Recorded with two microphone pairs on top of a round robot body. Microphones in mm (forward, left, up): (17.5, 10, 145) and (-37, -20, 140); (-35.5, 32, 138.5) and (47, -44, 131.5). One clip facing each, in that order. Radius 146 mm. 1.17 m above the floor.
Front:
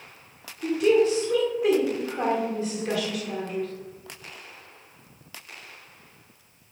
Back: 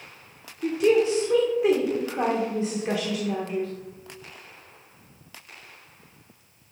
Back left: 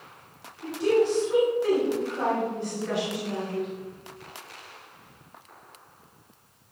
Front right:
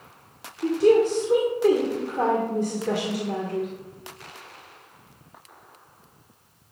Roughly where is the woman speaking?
Right.